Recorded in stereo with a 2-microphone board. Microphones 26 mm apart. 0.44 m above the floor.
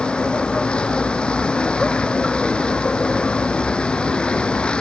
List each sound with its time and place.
0.0 s a vehicle: 40° left (ahead or behind)